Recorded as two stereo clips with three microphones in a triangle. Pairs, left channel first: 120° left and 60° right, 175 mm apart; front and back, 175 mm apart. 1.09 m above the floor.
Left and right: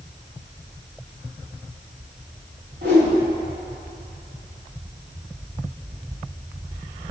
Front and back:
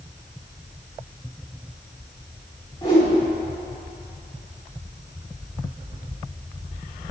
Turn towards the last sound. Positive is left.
turn(degrees=-60)